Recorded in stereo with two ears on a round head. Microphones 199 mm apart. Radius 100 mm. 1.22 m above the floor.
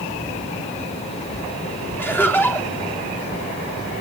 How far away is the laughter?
About 3.5 m.